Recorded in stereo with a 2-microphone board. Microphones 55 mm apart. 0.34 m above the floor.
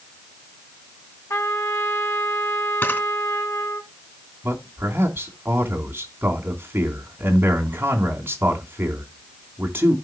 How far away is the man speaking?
About 3 m.